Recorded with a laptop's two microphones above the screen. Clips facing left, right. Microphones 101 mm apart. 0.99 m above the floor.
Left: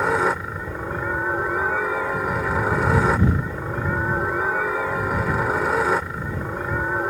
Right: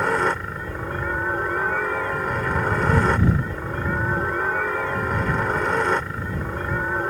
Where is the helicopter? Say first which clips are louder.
Left 1 dB; 5° left (ahead or behind).